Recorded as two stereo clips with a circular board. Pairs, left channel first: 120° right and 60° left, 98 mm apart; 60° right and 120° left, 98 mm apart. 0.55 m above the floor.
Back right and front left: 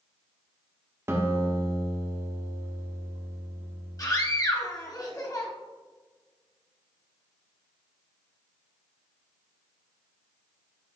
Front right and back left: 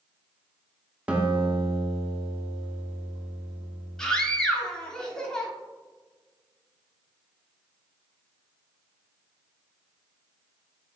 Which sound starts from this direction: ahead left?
A guitar, at 1.1 s.